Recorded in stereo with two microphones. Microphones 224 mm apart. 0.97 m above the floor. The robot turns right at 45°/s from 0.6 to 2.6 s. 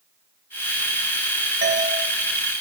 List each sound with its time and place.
1.6 s a doorbell: 45° right (ahead or behind), 0.9 m; by 1.9 s 50° right (ahead or behind), 0.9 m